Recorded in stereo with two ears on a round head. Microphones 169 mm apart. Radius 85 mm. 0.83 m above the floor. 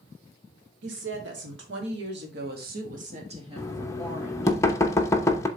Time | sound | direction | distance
0.8 | a woman speaking | 65° right (ahead or behind) | 2.5 m
3.6 | knocking | 15° left (ahead or behind) | 0.8 m